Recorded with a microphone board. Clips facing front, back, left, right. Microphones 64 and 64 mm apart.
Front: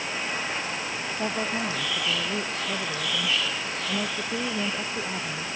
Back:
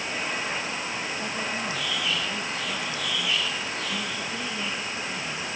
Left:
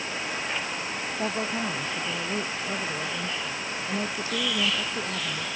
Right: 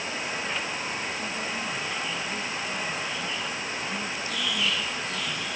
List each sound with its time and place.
1.2 s a woman speaking: 55° left; by 5.5 s 40° left